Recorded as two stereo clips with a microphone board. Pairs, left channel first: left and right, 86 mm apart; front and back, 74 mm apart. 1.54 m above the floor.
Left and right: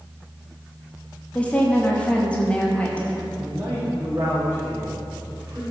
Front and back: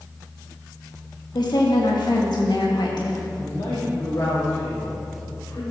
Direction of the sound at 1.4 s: 15° left.